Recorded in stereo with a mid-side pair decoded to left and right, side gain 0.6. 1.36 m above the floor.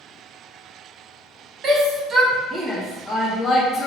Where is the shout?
50° right, 0.9 m; by 3.9 s 55° left, 0.8 m.